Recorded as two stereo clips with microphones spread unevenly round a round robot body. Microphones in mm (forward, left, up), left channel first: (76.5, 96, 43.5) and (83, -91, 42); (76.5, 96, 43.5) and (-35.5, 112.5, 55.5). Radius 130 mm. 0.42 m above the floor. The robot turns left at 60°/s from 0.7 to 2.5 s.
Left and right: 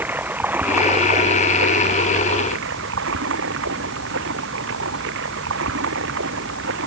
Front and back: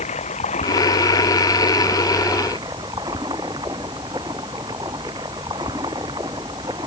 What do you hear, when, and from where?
0.0 s running water: 10° right; by 6.9 s 115° right